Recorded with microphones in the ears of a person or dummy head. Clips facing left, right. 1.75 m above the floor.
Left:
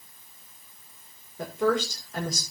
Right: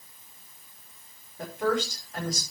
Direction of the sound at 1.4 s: 85° left.